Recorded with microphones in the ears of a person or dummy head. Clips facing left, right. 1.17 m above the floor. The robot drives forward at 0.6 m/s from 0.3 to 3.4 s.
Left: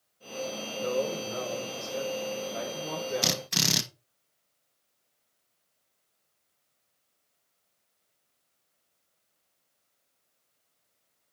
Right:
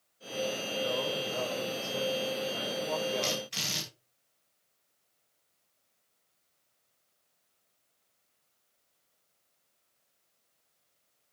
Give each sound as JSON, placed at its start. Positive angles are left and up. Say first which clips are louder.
{"t": 0.8, "sound": "a man speaking", "louder": "left 4 dB", "side_deg": 75, "distance_m": 6.0}
{"t": 3.2, "sound": "a drill", "louder": "left 3 dB", "side_deg": 65, "distance_m": 1.4}